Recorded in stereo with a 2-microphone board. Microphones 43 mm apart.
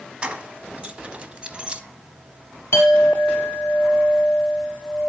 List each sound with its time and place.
0.2 s keys jangling: 25° right (ahead or behind), 1.1 m; by 1.8 s 20° right (ahead or behind), 1.0 m
2.7 s a clink: 80° left, 3.5 m